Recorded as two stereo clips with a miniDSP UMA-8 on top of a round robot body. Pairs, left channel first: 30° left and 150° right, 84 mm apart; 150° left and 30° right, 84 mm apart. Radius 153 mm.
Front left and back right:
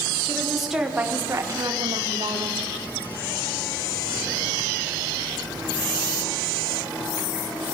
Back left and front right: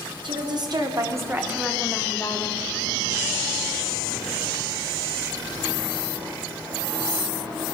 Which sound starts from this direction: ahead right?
A woman speaking, at 0.2 s.